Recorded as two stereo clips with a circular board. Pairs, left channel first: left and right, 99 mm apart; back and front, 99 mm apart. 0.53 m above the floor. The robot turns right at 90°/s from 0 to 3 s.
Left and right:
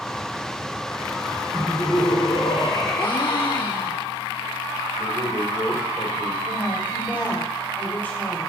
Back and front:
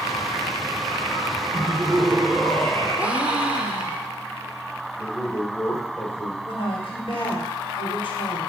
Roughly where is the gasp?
Left.